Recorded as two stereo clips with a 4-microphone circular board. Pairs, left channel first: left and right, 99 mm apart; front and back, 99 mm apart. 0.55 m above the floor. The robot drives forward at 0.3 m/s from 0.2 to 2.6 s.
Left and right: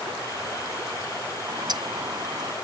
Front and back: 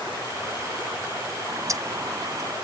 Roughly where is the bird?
Behind right.